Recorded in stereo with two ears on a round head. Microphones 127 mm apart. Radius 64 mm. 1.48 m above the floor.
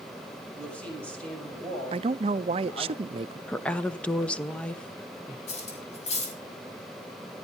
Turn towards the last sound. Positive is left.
turn(degrees=50)  # may be behind; listen again after turning